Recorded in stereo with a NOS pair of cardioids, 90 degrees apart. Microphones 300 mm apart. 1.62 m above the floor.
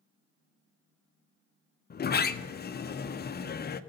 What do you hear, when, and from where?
1.9 s a sliding door: 30° left, 0.6 m